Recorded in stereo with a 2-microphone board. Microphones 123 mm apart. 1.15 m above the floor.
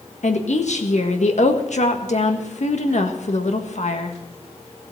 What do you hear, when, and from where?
0.2 s a woman speaking: 70° left (ahead or behind), 1.5 m